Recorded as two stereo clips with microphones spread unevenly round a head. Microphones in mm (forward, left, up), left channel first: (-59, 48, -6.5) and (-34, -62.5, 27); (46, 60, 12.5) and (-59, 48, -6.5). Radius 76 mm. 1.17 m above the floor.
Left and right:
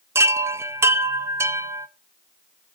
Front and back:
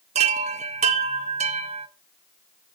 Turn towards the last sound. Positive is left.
turn(degrees=-135)